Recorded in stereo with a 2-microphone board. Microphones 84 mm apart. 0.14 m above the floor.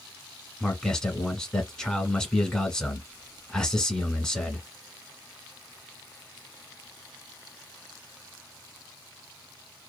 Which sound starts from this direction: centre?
A man speaking, at 0.6 s.